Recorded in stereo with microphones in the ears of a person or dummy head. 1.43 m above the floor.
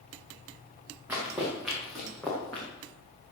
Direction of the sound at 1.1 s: 10° right (ahead or behind).